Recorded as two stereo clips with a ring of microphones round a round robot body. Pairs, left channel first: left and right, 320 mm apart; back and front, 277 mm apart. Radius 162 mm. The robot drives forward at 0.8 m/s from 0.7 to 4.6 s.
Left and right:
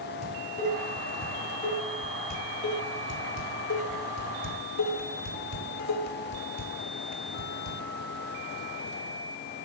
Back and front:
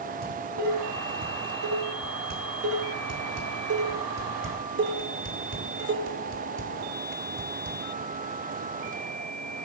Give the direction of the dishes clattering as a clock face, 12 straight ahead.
11 o'clock.